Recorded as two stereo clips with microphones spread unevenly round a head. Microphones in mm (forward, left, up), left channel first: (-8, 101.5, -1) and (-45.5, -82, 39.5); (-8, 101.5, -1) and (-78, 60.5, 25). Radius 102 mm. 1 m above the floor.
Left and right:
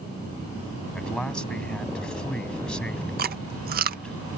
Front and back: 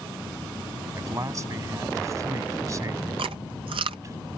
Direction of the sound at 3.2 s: 140° right.